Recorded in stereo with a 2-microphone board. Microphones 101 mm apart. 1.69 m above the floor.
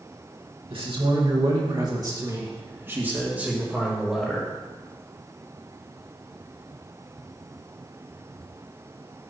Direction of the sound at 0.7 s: 65° right (ahead or behind).